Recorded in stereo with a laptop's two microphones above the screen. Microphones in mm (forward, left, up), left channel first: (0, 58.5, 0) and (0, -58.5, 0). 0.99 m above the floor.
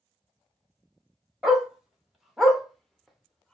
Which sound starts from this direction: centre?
A dog barking, at 1.4 s.